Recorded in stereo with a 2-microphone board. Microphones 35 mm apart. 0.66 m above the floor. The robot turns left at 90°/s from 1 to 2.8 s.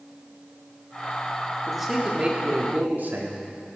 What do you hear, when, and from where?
1.7 s a man speaking: 15° left, 1.4 m; by 3.5 s 90° right, 1.4 m